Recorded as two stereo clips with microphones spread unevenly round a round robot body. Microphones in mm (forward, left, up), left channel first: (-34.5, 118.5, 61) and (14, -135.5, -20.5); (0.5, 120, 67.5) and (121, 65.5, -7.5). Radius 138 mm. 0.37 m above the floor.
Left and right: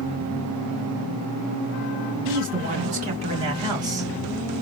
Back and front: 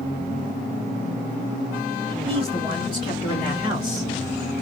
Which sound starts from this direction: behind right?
A man speaking, at 2.2 s.